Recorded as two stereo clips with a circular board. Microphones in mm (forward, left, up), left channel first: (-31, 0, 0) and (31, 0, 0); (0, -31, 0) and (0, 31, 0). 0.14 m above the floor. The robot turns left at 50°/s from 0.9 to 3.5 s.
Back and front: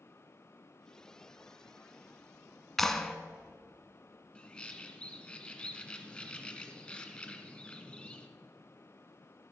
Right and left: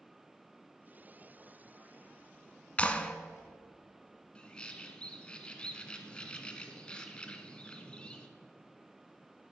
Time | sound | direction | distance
2.8 | a clap | 100° right | 1.2 m
4.3 | a bird | 135° right | 1.5 m